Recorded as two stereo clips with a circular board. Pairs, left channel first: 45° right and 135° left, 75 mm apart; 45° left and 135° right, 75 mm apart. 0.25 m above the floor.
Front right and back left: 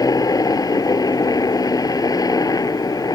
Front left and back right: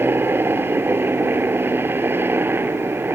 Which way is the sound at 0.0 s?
75° right.